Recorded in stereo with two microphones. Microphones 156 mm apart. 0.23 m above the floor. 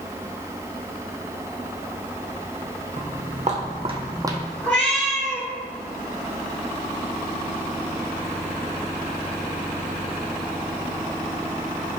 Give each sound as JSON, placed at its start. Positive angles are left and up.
{"t": 3.0, "sound": "footsteps", "side_deg": -55, "distance_m": 1.1}
{"t": 4.6, "sound": "a cat meowing", "side_deg": 10, "distance_m": 1.1}